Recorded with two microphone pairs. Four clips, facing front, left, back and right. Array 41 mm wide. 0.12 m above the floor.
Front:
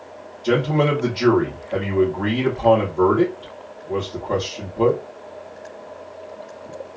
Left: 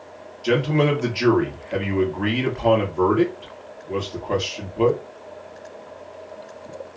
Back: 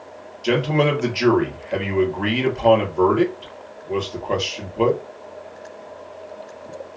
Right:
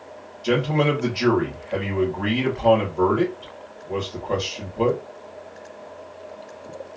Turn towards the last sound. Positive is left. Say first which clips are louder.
# left 1 dB, even
turn(degrees=160)